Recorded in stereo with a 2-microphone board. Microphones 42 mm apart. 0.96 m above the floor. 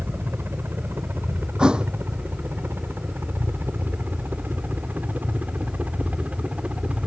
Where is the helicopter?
70° right (ahead or behind); by 7.1 s 30° right (ahead or behind).